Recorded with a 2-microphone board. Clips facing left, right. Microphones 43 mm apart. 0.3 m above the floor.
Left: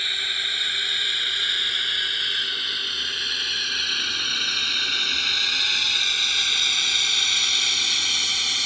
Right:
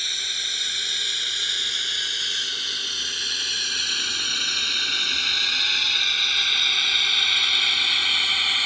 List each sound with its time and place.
0.0 s a drone: 20° left (ahead or behind); by 8.7 s 25° right (ahead or behind)